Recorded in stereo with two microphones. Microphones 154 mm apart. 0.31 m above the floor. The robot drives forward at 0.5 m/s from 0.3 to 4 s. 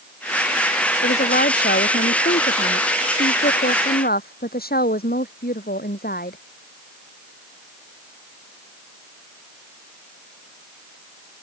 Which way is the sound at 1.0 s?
85° left.